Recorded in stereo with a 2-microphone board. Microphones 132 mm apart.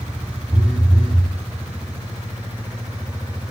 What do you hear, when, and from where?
0.5 s a phone buzzing: 5° right (ahead or behind), 3.5 m